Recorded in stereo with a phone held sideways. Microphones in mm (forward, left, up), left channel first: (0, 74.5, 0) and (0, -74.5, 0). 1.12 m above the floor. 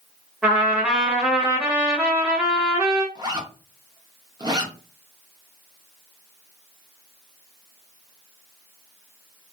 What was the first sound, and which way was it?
A trumpet, 5° right (ahead or behind).